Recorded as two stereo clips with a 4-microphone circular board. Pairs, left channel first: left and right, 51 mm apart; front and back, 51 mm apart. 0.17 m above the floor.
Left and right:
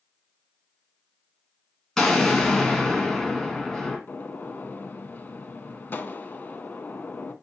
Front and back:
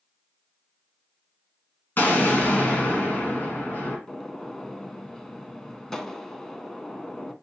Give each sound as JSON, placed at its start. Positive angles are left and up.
{"t": 2.0, "sound": "an explosion", "azimuth_deg": 15, "distance_m": 1.5}
{"t": 4.1, "sound": "a gunshot", "azimuth_deg": 75, "distance_m": 0.5}